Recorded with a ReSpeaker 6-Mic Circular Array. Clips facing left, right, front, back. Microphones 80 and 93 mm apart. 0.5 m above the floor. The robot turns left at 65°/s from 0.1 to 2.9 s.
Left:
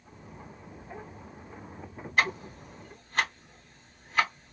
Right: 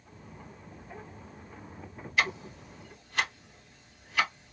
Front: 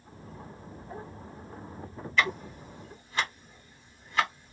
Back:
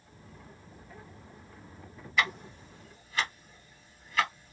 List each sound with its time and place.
2.2 s ticking: 105° left, 1.8 m; by 4.5 s 55° left, 1.8 m